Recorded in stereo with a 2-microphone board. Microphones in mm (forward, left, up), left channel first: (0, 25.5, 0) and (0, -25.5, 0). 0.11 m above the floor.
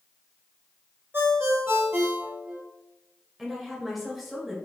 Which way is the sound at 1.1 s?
50° right (ahead or behind).